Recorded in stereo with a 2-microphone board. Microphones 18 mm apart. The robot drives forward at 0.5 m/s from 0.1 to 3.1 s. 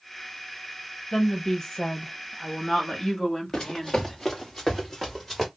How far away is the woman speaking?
About 1.0 m.